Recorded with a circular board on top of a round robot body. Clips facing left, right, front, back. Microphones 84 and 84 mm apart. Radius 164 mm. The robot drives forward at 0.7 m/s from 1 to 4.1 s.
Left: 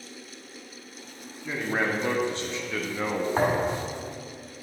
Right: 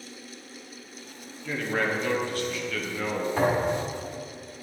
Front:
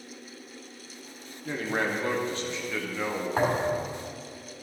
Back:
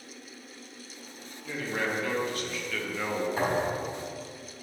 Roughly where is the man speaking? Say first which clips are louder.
Even, front 3 dB; ahead left.